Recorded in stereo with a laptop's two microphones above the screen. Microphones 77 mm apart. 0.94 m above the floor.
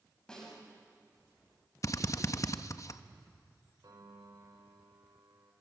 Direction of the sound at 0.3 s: 10° left (ahead or behind).